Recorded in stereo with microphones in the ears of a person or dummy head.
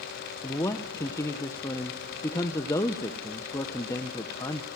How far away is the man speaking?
About 0.8 m.